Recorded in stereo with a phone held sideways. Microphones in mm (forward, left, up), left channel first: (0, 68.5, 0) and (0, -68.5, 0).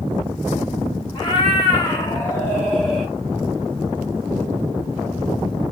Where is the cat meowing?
35° left (ahead or behind), 1.0 m; by 3.1 s 5° left (ahead or behind), 1.1 m.